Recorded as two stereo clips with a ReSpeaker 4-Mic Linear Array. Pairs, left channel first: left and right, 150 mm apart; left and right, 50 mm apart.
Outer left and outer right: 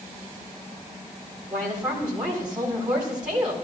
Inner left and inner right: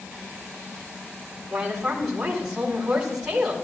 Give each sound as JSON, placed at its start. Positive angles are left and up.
{"t": 1.5, "sound": "a woman speaking", "side_deg": -5, "distance_m": 4.5}